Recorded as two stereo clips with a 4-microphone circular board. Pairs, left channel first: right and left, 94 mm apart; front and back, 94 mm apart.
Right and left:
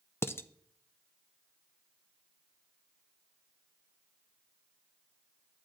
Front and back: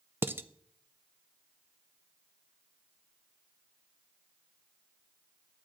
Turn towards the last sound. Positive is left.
turn(degrees=-130)